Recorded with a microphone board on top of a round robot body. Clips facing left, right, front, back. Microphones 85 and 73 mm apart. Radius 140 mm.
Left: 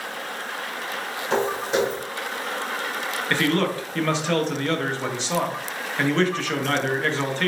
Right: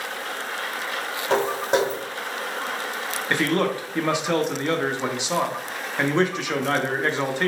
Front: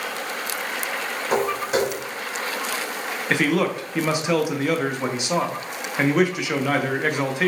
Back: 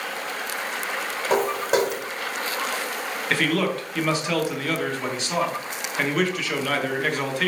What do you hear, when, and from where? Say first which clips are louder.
1.3 s footsteps: right 2 dB, back 1 dB; 130° right, 2 m
3.3 s a man speaking: even, front 2 dB; 45° right, 0.8 m